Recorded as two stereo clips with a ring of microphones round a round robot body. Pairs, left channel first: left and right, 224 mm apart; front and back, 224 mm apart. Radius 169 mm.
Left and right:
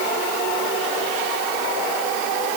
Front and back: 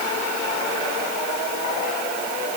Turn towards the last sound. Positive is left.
No sound to turn to.